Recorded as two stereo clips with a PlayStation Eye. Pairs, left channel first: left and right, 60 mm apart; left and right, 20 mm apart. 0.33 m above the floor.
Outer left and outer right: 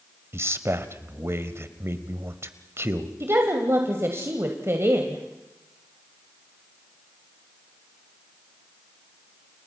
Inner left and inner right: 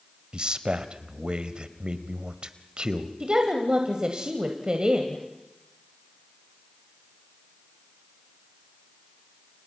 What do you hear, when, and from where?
0.3 s a man speaking: 45° right (ahead or behind), 1.3 m
3.2 s a woman speaking: 45° right (ahead or behind), 1.8 m